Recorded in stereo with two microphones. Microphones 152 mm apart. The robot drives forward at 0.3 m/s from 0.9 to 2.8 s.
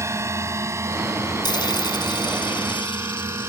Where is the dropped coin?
30° left (ahead or behind); by 3.5 s 35° left (ahead or behind).